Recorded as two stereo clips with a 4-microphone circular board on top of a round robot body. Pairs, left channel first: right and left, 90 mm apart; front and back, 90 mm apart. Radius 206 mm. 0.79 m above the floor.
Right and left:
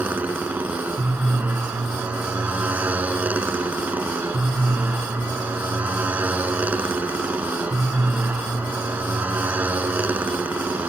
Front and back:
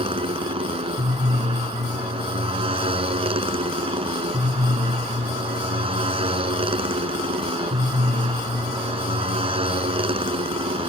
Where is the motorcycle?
165° left.